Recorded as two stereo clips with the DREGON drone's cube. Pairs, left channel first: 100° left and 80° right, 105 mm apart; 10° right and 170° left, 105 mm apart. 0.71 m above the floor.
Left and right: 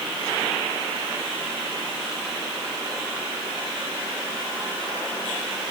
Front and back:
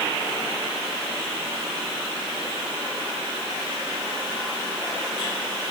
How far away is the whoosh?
No whoosh in this recording.